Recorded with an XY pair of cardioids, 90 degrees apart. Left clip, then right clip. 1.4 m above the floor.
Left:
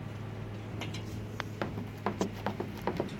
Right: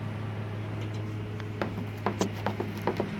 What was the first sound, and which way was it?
A lawn mower, 50° right.